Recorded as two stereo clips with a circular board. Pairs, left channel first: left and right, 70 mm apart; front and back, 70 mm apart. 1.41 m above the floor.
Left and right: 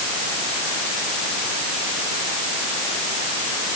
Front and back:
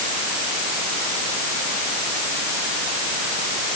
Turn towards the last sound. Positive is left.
No sound to turn to.